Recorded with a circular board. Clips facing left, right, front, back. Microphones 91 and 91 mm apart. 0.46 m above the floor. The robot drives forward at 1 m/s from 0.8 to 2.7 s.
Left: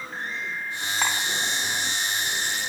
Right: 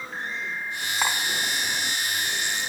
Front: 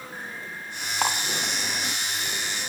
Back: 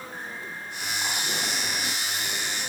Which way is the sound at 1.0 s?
5° right.